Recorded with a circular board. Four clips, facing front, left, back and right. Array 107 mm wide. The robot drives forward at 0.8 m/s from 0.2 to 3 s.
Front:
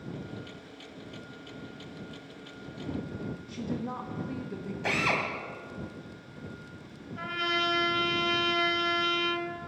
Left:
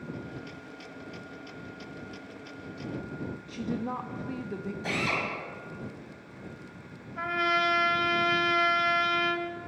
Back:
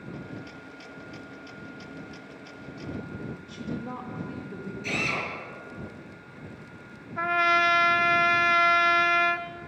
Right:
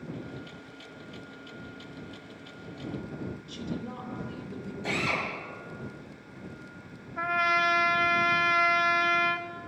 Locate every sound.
3.5 s a woman speaking: 80° left, 0.9 m
4.8 s a drill: 5° left, 2 m
7.2 s a trumpet: 160° right, 0.7 m